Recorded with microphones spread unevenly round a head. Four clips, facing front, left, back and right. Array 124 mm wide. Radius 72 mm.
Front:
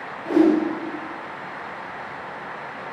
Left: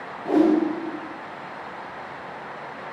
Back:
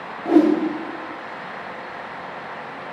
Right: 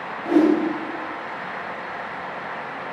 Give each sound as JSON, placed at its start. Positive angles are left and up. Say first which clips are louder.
{"t": 0.2, "sound": "a whoosh", "louder": "right 2 dB, back 2 dB", "azimuth_deg": 155, "distance_m": 1.3}